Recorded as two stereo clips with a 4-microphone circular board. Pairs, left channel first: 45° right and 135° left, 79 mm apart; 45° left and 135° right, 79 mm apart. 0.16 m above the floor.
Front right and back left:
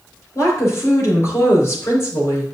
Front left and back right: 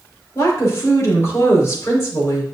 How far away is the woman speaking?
About 3 m.